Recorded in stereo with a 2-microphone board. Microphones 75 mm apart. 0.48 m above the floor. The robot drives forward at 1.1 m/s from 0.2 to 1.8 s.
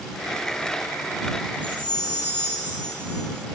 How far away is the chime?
About 7.5 m.